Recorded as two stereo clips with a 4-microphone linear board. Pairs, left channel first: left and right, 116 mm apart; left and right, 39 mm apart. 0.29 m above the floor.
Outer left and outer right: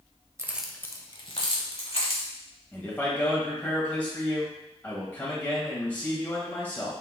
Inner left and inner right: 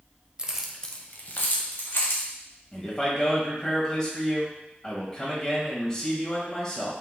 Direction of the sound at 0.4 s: 25° right (ahead or behind).